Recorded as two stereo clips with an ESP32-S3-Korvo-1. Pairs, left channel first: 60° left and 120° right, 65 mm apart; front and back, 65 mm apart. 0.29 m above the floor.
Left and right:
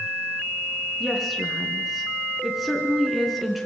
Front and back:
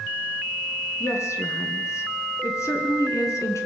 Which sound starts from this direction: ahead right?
A woman speaking, at 1.0 s.